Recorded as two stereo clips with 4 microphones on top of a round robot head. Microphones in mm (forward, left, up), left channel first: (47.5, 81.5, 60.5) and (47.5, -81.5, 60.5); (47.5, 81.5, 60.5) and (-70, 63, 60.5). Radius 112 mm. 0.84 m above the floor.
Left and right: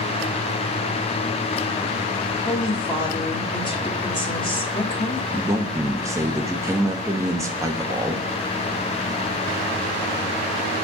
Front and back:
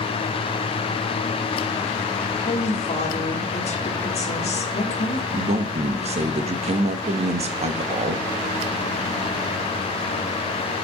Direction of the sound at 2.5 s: 30° left.